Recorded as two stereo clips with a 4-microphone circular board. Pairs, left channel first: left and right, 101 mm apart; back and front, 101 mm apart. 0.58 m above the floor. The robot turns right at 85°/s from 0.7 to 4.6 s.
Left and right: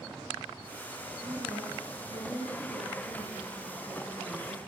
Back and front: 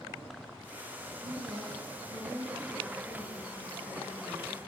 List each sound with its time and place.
1.2 s a woman speaking: 35° right, 8 m; by 4.6 s 110° right, 8 m